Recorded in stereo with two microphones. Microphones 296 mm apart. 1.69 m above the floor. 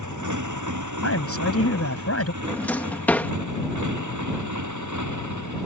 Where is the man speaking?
50° left (ahead or behind).